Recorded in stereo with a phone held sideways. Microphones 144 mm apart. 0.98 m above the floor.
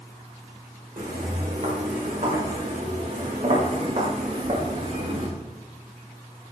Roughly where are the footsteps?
Right.